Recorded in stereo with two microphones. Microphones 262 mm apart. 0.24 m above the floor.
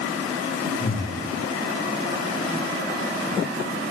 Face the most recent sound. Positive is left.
turn(degrees=35)  # may be behind; listen again after turning